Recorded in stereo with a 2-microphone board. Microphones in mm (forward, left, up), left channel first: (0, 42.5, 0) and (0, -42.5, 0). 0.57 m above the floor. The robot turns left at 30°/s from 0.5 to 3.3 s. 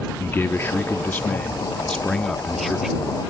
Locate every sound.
0.2 s a man speaking: 25° left (ahead or behind); by 3.2 s 10° right (ahead or behind)